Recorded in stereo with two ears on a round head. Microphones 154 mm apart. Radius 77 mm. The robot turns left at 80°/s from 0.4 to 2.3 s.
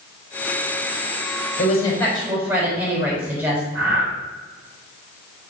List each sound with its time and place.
1.6 s a woman speaking: 45° left, 4.5 m; by 3.6 s 10° right, 4.5 m
3.7 s breathing: 10° right (ahead or behind), 4.5 m